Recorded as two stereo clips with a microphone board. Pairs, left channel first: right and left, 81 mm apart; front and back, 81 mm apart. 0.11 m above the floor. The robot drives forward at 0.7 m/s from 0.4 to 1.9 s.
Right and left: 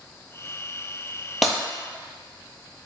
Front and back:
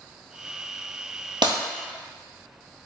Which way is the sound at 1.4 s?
Straight behind.